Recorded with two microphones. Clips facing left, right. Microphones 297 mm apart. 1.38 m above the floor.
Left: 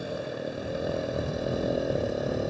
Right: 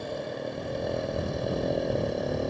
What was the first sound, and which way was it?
A motorcycle, 10° left (ahead or behind).